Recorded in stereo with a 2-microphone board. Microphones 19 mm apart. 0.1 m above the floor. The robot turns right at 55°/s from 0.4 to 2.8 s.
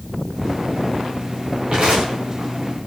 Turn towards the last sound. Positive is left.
turn(degrees=-60)  # may be behind; listen again after turning